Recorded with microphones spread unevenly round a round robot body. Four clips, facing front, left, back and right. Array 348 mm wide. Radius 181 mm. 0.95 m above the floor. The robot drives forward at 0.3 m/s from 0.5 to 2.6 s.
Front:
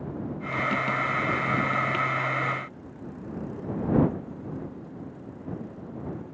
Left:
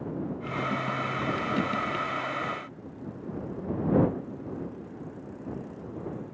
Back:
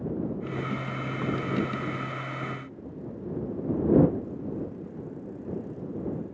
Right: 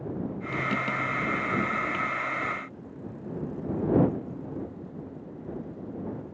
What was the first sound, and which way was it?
Only background noise.